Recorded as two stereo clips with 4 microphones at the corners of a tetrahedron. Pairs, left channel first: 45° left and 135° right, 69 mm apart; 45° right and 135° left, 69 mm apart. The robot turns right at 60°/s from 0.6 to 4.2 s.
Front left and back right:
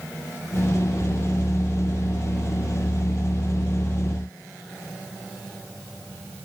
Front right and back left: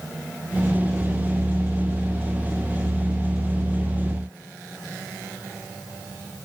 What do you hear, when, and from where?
Only background noise.